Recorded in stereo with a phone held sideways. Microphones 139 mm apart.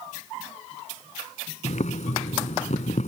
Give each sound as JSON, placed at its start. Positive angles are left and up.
{"t": 1.6, "sound": "boiling", "side_deg": 60}